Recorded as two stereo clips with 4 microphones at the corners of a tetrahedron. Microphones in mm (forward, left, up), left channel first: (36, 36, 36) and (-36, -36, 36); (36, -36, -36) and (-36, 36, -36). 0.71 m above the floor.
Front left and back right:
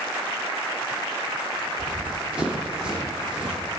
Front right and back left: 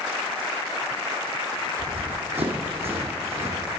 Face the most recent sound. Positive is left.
turn(degrees=145)